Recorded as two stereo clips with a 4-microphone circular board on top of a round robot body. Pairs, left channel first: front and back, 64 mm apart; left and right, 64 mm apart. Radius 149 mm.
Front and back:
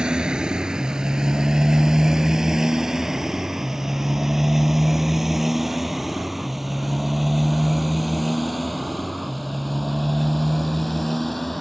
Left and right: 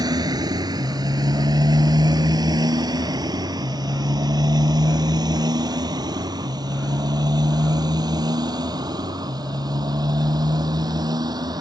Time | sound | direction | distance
0.0 | a motorcycle | 105° right | ?